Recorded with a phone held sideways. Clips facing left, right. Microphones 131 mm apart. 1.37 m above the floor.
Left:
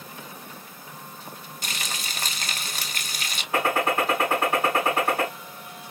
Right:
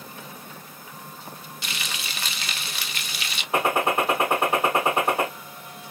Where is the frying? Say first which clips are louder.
Left 1 dB; 40° left (ahead or behind), 0.6 m.